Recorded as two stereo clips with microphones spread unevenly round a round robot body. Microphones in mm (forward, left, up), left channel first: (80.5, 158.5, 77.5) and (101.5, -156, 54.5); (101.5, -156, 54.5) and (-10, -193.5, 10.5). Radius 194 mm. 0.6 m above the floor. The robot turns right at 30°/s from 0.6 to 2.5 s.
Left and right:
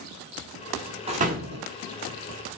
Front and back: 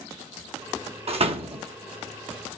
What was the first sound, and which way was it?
A door slam, 155° right.